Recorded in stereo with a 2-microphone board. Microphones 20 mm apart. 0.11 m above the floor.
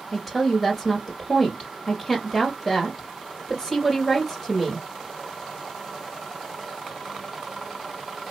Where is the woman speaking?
5° right (ahead or behind), 2 m.